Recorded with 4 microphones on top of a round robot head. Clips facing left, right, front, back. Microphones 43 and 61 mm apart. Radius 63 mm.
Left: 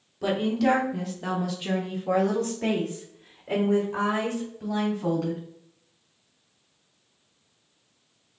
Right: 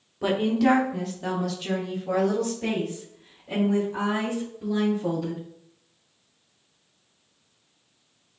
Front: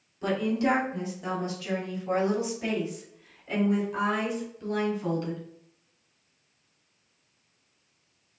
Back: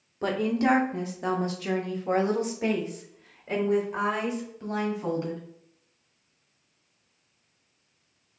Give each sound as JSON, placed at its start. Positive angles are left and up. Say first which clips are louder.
{"t": 0.2, "sound": "a woman speaking", "louder": "right 2 dB, back 1 dB", "azimuth_deg": -160, "distance_m": 1.2}